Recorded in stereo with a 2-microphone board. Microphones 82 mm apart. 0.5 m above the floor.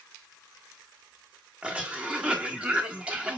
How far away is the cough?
About 1.1 m.